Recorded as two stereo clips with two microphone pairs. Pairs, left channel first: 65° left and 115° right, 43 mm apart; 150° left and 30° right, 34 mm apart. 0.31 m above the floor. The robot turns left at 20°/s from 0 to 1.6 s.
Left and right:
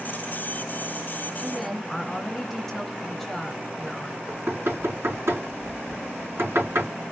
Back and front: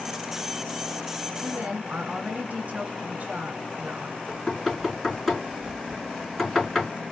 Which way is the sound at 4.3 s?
130° right.